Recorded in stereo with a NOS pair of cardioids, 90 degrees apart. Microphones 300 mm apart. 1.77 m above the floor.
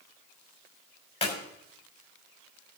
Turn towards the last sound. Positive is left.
turn(degrees=20)